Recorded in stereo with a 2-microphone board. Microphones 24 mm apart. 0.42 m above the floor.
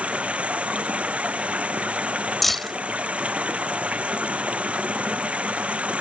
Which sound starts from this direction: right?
Running water, at 0.0 s.